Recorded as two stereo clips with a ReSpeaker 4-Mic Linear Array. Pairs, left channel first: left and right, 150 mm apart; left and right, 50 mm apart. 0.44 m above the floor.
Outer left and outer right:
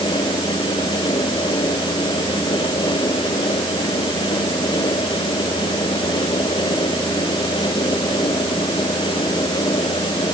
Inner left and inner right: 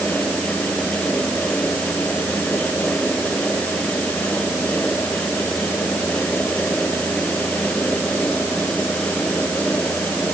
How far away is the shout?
I don't hear a shout.